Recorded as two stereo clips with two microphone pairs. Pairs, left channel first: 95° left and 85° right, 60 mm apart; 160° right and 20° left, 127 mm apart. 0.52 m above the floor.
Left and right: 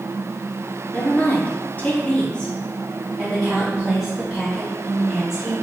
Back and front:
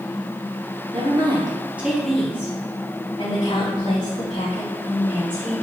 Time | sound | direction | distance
0.9 | a woman speaking | 45° left | 1.0 m